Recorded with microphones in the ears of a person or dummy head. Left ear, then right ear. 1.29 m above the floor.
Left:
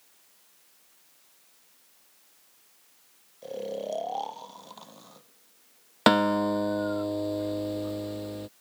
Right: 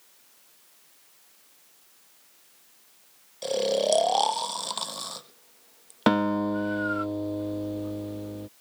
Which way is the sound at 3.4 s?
50° right (ahead or behind).